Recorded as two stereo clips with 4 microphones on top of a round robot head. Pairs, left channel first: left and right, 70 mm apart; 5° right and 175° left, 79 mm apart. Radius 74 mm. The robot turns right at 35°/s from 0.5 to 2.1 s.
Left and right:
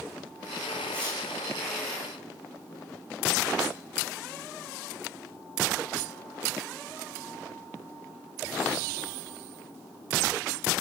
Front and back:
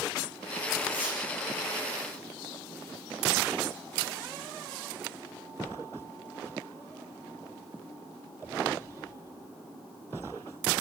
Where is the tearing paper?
10° left, 8.5 m; by 1.2 s 20° left, 8.5 m.